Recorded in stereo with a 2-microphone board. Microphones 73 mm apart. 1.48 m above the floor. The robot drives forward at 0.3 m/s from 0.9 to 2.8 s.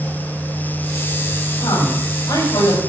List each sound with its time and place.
1.6 s a woman speaking: 75° left (ahead or behind), 7 m; by 2.8 s 70° left (ahead or behind), 7 m